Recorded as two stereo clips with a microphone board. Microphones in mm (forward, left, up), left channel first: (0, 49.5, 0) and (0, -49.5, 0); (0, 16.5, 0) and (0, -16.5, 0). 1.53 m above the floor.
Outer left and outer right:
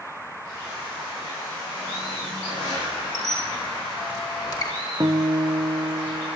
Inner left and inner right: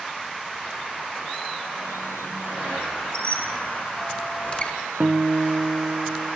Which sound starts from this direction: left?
A squeak, at 3.1 s.